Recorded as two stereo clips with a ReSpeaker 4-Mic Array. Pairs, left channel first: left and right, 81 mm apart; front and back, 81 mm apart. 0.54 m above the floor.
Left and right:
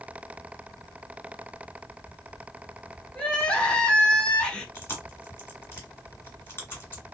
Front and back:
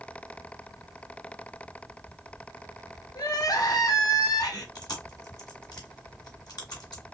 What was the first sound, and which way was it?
Crying, 15° left.